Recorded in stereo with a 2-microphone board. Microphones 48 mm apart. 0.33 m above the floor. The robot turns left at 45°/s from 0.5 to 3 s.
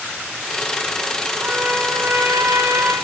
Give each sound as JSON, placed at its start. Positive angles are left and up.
{"t": 1.4, "sound": "a trumpet", "azimuth_deg": -55, "distance_m": 1.1}